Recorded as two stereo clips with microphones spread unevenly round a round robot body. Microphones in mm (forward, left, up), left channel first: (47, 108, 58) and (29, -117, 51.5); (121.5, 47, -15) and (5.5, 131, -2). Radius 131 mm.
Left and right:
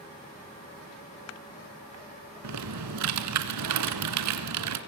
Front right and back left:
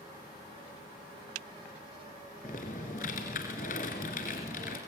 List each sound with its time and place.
2.4 s typing on a keyboard: 95° right, 2 m